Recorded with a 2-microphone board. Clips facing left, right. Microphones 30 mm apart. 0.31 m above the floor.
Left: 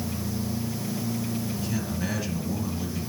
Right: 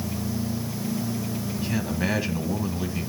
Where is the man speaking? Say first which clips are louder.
Right 3 dB; 30° right (ahead or behind), 1.9 m.